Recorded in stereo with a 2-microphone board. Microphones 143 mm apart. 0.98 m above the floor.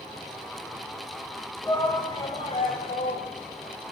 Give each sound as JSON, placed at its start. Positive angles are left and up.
{"t": 1.6, "sound": "a shout", "side_deg": 25, "distance_m": 3.5}